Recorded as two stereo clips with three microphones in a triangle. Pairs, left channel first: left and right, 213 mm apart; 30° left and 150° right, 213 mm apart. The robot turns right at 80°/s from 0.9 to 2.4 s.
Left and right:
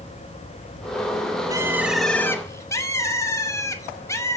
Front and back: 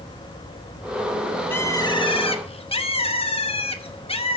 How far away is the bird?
About 0.9 m.